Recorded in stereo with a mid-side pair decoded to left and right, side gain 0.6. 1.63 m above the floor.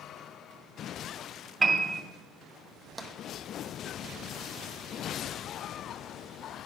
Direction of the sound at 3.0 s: 10° right.